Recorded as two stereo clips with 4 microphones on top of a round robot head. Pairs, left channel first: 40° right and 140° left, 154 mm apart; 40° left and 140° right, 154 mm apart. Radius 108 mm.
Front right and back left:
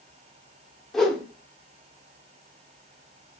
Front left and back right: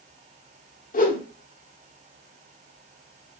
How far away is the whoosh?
About 0.7 m.